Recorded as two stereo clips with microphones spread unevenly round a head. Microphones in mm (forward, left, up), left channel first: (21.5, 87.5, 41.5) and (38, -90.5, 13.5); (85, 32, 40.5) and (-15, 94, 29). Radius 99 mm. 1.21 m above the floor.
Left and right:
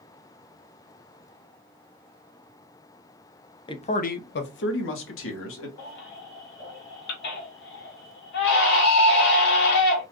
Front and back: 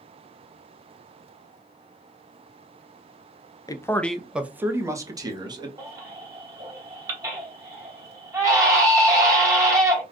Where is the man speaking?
30° left, 0.8 m; by 5.7 s 95° left, 1.8 m.